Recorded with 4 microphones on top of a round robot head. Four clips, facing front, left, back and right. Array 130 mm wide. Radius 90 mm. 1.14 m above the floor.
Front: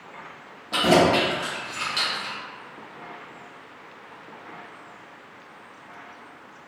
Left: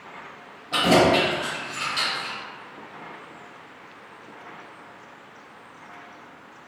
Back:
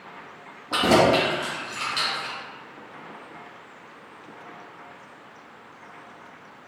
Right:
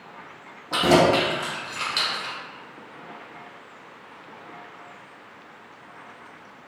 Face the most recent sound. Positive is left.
turn(degrees=-75)